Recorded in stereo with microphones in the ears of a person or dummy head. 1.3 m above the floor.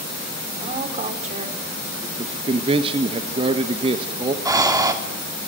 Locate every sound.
0.5 s a woman speaking: 40° right (ahead or behind), 3 m
2.2 s a man speaking: 35° right (ahead or behind), 1.2 m
4.5 s breathing: 20° right (ahead or behind), 2 m